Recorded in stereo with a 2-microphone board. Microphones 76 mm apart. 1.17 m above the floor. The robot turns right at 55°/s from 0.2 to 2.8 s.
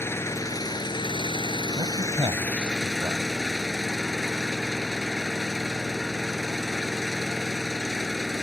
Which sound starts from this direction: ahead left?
An engine running, at 0.0 s.